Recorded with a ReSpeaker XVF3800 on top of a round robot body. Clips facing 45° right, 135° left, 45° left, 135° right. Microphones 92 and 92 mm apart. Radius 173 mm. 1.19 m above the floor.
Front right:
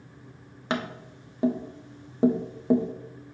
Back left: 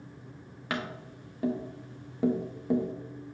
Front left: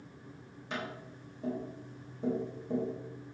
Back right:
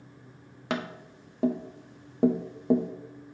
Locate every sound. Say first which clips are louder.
0.7 s tapping: front right 4 dB, back right 7 dB; 110° right, 0.5 m